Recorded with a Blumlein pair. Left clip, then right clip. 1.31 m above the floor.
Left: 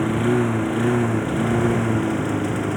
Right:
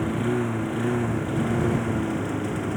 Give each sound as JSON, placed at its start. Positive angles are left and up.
{"t": 0.0, "sound": "a lawn mower", "azimuth_deg": 15}